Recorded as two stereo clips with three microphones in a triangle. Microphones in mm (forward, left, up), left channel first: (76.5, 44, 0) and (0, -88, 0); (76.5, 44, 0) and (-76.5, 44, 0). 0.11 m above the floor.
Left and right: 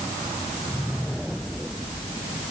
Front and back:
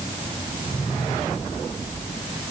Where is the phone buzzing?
No phone buzzing in this recording.